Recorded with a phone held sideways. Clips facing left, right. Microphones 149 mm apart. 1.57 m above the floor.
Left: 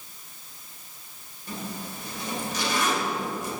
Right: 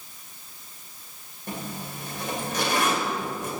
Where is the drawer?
I don't hear a drawer.